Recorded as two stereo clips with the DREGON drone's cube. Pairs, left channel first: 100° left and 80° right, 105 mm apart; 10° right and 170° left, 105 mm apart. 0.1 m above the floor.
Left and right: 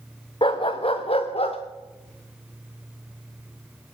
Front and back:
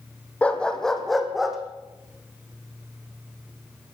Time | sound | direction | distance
0.4 | a dog barking | 65° left | 2.5 m